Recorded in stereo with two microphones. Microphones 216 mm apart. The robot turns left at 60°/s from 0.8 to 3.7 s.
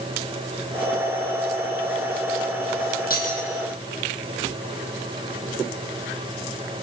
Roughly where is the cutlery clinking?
Left.